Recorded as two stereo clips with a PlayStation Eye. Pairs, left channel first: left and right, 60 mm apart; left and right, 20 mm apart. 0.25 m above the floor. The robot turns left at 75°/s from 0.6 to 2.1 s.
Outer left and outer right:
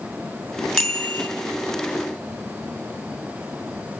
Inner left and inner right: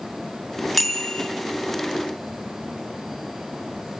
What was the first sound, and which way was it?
A bicycle bell, 170° left.